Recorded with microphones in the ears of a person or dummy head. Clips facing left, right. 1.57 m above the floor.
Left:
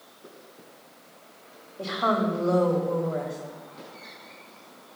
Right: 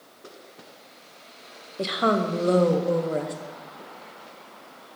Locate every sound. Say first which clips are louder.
1.8 s a woman speaking: right 2 dB; 35° right (ahead or behind), 0.6 m